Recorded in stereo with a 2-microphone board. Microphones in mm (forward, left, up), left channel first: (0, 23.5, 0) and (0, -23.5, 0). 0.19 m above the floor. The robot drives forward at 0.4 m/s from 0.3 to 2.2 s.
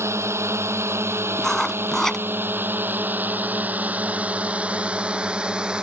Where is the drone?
75° right (ahead or behind); by 5.8 s 20° right (ahead or behind).